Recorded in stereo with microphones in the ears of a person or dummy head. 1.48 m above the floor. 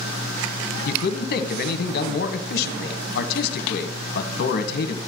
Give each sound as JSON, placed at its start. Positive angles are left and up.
{"t": 0.8, "sound": "a man speaking", "side_deg": 60, "distance_m": 1.3}